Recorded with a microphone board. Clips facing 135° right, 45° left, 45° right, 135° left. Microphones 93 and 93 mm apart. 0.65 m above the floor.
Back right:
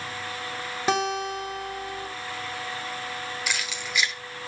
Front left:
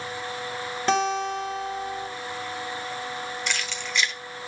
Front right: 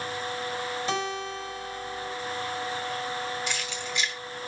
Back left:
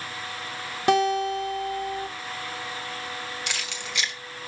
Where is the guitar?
145° left, 2.0 m.